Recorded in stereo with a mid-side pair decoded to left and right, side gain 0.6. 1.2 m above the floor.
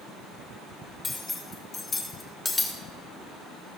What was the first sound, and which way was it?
Cutlery clinking, 20° left.